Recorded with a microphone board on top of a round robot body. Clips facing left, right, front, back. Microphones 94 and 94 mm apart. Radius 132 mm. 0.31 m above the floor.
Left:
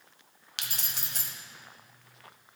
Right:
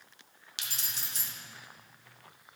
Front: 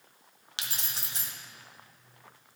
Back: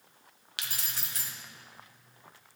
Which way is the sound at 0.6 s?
60° left.